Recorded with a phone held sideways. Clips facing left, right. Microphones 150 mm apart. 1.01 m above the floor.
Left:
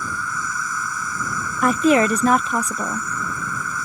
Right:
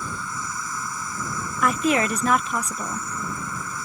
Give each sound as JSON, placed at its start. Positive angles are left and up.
{"t": 0.0, "sound": "an insect", "side_deg": -25}
{"t": 1.6, "sound": "a woman speaking", "side_deg": 35}